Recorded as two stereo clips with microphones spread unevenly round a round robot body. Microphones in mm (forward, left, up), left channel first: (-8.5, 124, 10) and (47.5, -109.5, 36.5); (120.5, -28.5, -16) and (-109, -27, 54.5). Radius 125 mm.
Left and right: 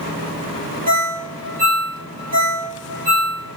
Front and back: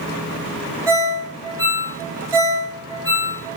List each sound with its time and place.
0.9 s a ringtone: 95° right, 1.3 m